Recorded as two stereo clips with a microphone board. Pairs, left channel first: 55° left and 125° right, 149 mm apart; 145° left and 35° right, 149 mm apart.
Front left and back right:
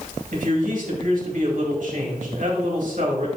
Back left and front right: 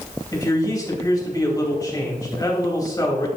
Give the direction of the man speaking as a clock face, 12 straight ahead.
5 o'clock.